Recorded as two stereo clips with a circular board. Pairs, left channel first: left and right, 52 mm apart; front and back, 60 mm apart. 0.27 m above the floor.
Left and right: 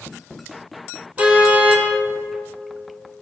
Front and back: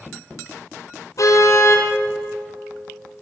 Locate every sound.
1.2 s a car horn: 25° right, 4.5 m